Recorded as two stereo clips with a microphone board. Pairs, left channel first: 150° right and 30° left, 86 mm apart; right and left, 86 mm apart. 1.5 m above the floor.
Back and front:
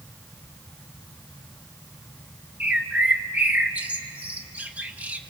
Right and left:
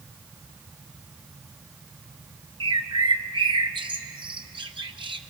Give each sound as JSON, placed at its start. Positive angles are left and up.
{"t": 2.6, "sound": "a bird", "azimuth_deg": 105, "distance_m": 0.9}